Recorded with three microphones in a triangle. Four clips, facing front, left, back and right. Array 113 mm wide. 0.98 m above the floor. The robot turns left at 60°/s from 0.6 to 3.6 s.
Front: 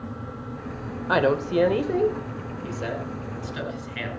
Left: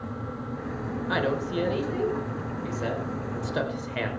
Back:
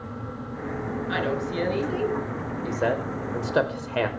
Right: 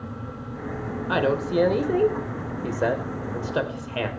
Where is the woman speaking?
15° right, 3 m; by 4.1 s 165° right, 3 m.